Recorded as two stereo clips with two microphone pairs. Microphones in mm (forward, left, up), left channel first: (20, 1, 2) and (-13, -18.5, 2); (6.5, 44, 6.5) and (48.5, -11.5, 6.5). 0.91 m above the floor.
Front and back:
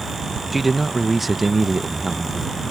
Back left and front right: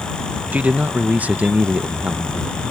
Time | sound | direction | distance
0.5 | a man speaking | 70° right | ?